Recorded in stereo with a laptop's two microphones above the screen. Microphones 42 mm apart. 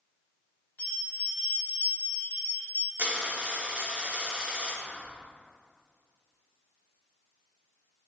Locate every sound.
0.8 s a bell: 45° left (ahead or behind), 1.3 m
3.0 s a dropped coin: 40° right (ahead or behind), 0.9 m
4.8 s whispering: 55° right (ahead or behind), 1.0 m